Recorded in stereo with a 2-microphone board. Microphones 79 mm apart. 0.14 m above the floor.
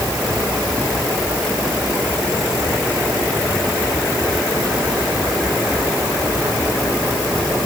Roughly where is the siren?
I don't hear a siren.